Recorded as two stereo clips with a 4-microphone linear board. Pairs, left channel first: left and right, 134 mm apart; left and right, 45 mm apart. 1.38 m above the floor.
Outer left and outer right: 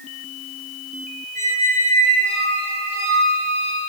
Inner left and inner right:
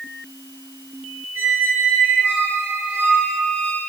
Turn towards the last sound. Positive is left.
turn(degrees=-70)  # may be behind; listen again after turning